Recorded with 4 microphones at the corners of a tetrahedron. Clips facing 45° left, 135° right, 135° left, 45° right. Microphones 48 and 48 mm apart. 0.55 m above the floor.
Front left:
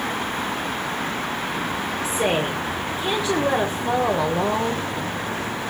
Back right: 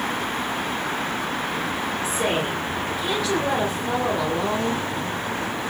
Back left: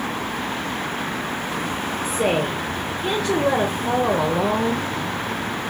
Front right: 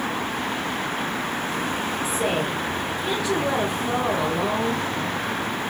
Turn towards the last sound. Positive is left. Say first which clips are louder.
# front left 3 dB, back left 5 dB
turn(degrees=110)